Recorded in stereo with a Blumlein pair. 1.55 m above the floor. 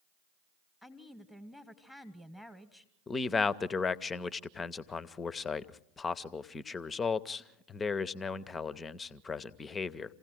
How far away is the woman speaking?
About 1.2 m.